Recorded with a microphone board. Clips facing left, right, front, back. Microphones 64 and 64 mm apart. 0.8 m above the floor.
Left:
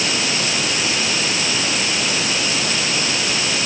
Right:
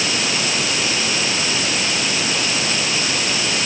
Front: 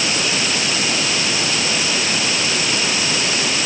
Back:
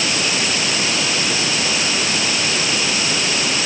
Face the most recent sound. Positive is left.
No sound to turn to.